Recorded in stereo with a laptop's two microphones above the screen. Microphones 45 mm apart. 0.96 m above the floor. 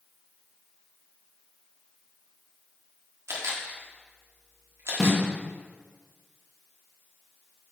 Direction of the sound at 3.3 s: 70° right (ahead or behind).